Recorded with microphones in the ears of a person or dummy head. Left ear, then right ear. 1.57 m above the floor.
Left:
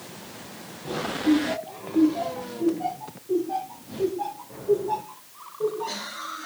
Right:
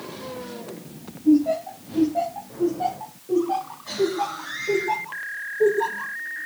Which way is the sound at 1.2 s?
35° right (ahead or behind).